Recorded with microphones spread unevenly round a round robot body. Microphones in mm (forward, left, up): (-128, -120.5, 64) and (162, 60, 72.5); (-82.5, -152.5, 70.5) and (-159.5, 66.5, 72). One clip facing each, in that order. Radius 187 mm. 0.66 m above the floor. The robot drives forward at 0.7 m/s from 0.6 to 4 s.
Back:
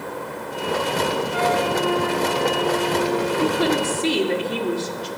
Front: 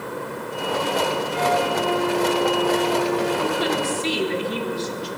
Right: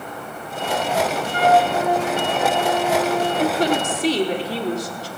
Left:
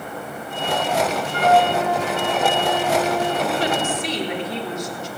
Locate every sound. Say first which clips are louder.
1.3 s a flute: back 1 dB, even; 120° right, 2.5 m; by 3.3 s 140° right, 3.5 m
3.4 s a woman speaking: back 3 dB, right 3 dB; 115° right, 2 m; by 5.1 s 125° right, 2 m